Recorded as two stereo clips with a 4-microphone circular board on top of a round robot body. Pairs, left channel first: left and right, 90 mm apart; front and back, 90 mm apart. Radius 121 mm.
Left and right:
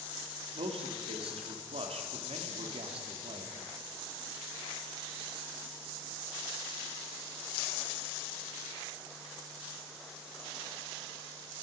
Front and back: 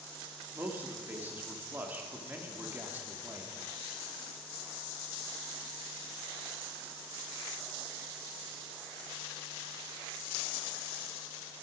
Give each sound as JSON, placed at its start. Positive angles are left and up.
{"t": 0.5, "sound": "a man speaking", "azimuth_deg": -110, "distance_m": 2.0}